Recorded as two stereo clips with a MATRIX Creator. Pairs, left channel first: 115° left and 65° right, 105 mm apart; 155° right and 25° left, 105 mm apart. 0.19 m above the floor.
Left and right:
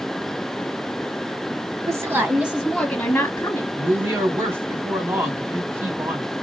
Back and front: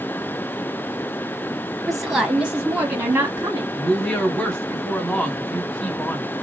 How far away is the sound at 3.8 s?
About 1.6 m.